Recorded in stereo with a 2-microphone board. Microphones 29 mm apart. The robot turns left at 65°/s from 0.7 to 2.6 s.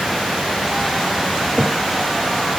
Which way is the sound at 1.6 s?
10° left (ahead or behind).